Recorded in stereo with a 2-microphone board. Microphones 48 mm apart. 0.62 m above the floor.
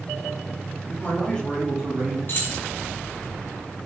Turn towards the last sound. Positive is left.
turn(degrees=45)  # may be behind; listen again after turning